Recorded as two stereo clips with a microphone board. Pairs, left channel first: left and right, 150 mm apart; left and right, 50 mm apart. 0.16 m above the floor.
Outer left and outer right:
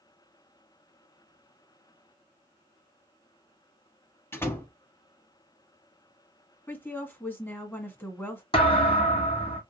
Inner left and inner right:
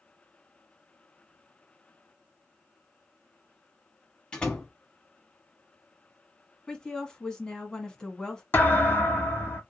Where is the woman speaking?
15° left (ahead or behind), 1.1 m.